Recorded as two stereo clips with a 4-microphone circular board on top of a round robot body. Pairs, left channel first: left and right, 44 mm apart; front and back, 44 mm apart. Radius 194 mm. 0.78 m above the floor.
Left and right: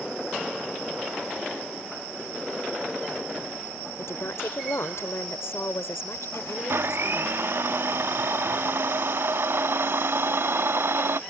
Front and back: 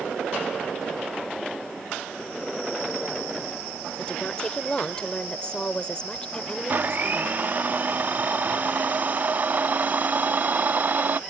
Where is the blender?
125° right.